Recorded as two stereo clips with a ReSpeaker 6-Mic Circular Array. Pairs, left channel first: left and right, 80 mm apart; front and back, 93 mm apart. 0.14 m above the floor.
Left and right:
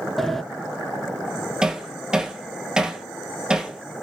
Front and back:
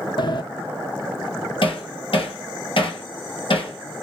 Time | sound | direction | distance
0.2 | a sliding door | 5° left | 0.5 m
1.6 | hammering | 10° right | 1.3 m